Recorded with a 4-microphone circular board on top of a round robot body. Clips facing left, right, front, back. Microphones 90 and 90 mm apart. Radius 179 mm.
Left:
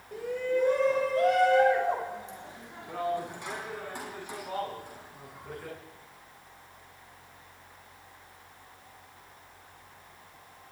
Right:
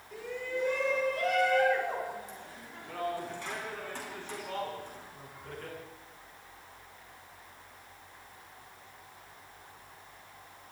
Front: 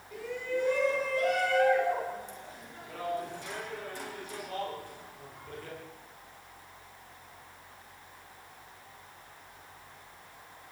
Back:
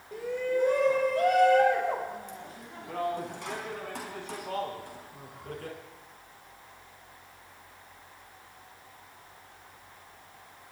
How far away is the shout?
About 3.5 m.